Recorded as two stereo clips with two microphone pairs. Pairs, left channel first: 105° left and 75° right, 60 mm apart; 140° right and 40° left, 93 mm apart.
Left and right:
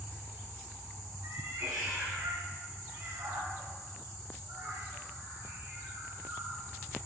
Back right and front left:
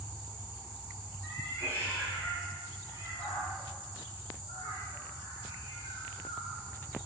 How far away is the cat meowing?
About 6 m.